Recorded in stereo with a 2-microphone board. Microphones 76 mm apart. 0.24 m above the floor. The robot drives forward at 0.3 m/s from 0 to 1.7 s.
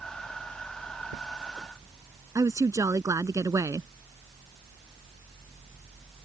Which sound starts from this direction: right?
A woman speaking, at 2.4 s.